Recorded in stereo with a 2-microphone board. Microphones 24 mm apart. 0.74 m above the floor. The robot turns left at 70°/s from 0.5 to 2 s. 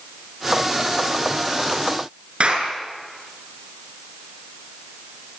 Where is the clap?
50° right (ahead or behind), 7.5 m.